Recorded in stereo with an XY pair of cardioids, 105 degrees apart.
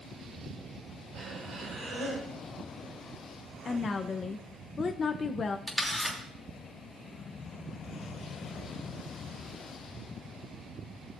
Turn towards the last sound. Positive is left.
turn(degrees=0)